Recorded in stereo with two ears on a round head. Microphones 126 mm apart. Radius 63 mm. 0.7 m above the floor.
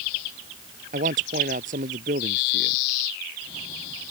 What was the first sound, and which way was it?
A man speaking, 60° right (ahead or behind).